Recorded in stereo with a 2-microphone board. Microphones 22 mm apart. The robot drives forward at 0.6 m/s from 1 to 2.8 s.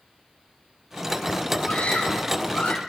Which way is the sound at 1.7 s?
70° left (ahead or behind).